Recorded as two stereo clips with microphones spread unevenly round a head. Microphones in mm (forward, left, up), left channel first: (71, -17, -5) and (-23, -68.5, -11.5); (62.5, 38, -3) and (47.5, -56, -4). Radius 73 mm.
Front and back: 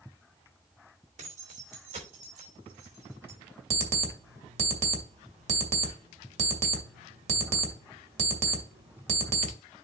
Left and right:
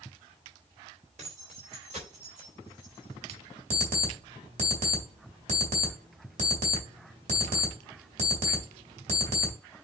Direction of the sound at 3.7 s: 130° right.